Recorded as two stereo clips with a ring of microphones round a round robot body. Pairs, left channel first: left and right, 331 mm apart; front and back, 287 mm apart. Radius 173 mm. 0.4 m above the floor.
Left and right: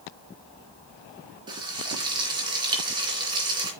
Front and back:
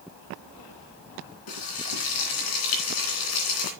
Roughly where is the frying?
Ahead.